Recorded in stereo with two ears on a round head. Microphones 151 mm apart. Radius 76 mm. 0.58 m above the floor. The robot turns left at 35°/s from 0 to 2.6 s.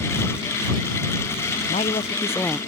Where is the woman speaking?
35° left; by 2.6 s 5° left.